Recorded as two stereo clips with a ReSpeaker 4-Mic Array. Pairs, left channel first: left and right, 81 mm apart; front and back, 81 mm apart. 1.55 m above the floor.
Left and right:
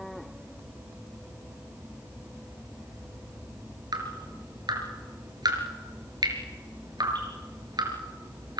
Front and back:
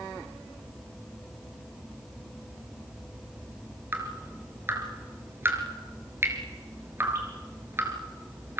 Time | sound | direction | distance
3.9 | dripping | 120° right | 4.5 m